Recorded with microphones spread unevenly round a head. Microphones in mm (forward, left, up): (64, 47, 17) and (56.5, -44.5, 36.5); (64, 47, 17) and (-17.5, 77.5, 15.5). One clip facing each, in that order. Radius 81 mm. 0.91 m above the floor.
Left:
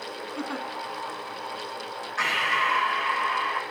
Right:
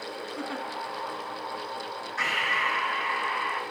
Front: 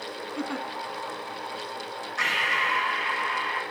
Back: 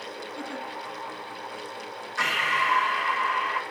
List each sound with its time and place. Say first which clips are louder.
0.4 s a giggle: left 3 dB, front 5 dB; 10° left, 1.1 m
2.2 s breathing: left 3 dB, back 2 dB; 160° left, 1.8 m